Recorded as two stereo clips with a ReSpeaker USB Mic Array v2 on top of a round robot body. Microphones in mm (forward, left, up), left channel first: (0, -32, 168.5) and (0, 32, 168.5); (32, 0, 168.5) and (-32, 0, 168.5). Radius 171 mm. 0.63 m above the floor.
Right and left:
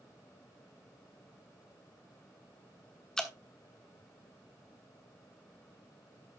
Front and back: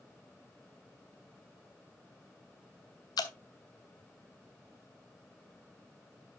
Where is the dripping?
10° right, 1.2 m.